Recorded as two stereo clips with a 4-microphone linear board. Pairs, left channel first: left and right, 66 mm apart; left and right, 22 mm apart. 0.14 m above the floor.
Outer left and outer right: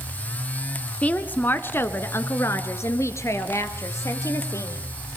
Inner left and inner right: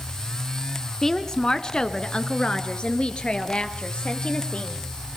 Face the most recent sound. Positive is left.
turn(degrees=50)  # may be behind; listen again after turning